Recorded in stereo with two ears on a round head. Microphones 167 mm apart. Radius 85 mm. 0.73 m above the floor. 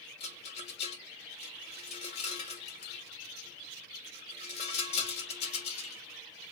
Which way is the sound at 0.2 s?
35° left (ahead or behind).